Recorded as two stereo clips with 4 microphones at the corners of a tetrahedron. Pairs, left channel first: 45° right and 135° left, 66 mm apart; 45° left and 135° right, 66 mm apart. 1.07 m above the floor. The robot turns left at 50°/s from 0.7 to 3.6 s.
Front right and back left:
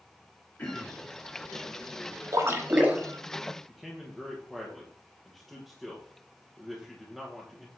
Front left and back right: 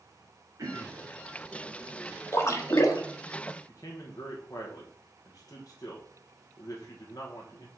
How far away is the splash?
About 1.2 m.